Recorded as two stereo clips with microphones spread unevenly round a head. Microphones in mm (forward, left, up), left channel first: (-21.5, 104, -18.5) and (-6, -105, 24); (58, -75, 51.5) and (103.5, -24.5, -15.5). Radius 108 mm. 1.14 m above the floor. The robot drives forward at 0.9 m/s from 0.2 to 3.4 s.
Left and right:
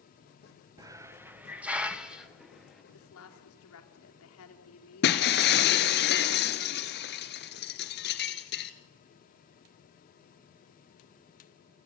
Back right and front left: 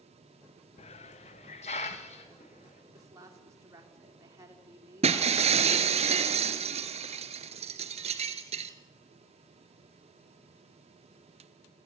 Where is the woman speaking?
75° left, 3.5 m; by 6.0 s 85° left, 3.5 m.